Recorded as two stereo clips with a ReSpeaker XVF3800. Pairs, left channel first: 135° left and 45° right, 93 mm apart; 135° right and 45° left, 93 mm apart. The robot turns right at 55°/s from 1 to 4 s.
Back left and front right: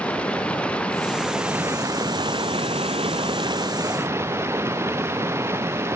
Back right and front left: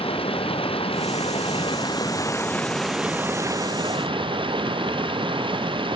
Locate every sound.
0.0 s running water: 150° right; by 6.0 s 15° left